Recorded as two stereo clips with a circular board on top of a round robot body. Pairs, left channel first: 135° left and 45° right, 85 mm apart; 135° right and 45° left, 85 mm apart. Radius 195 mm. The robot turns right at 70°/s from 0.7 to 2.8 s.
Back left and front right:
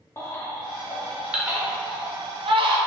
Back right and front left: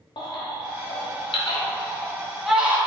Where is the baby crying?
165° right, 0.6 m; by 2.8 s 20° right, 0.6 m.